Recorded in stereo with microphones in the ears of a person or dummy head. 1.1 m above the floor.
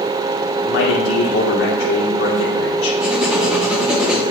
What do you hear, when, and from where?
0.6 s a man speaking: 65° left (ahead or behind), 2 m
3.0 s writing: centre (ahead or behind), 0.7 m